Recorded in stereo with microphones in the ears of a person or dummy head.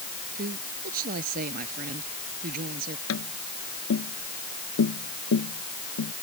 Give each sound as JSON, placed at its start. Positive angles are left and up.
{"t": 0.3, "sound": "a woman speaking", "side_deg": -50}
{"t": 3.1, "sound": "tapping", "side_deg": 75}